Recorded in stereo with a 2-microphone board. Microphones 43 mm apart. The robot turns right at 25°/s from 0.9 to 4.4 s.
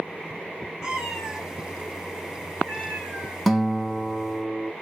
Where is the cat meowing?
15° right, 1.8 m; by 3.4 s 50° left, 1.8 m.